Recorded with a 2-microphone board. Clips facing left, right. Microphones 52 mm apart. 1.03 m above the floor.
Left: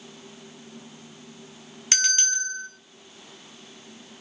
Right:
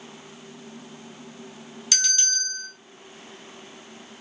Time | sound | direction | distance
1.9 | a bell | 35° left (ahead or behind) | 0.7 m